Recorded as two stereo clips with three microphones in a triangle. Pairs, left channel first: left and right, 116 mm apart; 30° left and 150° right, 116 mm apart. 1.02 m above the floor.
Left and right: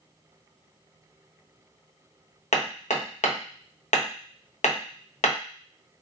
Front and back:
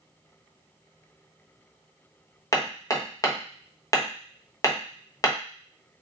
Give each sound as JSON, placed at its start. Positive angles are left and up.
{"t": 2.5, "sound": "hammering", "azimuth_deg": 90, "distance_m": 0.7}